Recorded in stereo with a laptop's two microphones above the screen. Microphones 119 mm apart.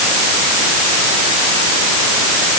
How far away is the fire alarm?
I don't hear a fire alarm.